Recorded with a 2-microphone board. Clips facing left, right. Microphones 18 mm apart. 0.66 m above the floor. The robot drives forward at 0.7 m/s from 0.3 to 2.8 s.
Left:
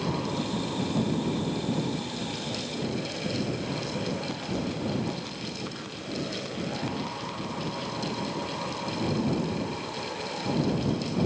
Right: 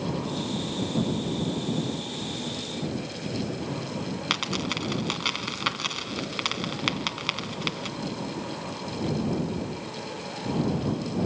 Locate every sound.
4.3 s a dropped coin: 65° right (ahead or behind), 1.7 m